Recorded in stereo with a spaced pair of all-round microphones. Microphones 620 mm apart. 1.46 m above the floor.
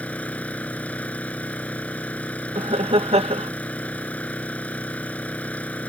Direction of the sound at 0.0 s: Centre (ahead or behind).